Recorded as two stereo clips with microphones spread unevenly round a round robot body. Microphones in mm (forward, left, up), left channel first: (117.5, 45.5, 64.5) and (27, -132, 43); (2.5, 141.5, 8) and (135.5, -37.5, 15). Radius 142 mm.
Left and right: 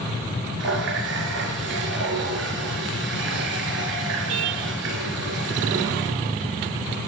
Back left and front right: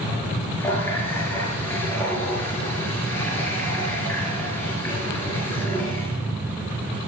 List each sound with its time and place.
0.6 s a running tap: 150° right, 3.5 m